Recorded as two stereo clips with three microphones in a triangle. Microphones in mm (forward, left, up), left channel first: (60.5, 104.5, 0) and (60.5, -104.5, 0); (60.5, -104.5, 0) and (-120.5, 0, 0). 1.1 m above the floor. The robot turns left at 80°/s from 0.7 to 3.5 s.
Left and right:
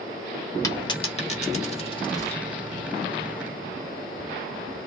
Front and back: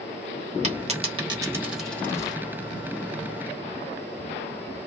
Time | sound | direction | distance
0.6 | a dropped coin | 150° left | 0.9 m